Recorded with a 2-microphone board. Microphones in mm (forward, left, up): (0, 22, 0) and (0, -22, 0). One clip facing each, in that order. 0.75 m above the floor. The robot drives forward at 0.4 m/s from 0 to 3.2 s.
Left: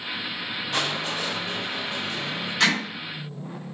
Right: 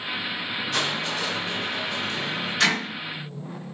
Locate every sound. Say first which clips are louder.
0.7 s crushing: even; 20° left (ahead or behind), 2 m; by 2.5 s 15° left (ahead or behind), 3 m
2.6 s hammering: left 1 dB; 10° left (ahead or behind), 3 m